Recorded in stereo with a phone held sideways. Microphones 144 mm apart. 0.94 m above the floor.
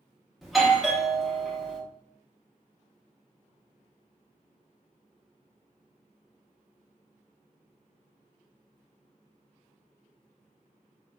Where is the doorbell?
Centre (ahead or behind), 0.6 m.